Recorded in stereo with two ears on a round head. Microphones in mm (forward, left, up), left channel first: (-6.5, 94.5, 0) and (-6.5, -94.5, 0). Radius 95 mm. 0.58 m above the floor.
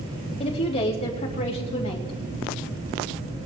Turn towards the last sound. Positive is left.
turn(degrees=30)  # may be behind; listen again after turning